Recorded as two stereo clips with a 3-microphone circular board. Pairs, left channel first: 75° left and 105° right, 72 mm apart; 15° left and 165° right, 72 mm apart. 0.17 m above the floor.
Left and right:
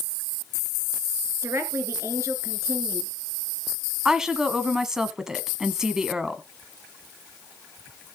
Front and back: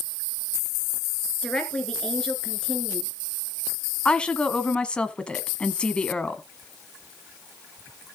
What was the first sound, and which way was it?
A woman speaking, 60° right.